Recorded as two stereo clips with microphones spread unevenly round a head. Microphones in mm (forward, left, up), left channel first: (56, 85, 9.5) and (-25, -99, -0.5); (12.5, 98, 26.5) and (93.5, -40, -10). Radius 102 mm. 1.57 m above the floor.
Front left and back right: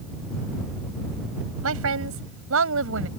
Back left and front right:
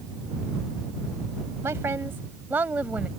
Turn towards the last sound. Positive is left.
turn(degrees=-145)